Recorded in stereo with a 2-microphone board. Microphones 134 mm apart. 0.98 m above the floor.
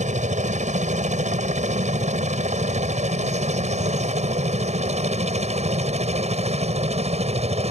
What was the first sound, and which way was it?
A helicopter, 60° right (ahead or behind).